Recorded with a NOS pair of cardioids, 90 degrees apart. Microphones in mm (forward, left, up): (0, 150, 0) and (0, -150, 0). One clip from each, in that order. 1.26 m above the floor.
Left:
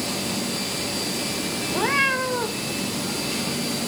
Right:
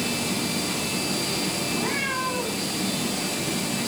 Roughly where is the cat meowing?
Ahead left.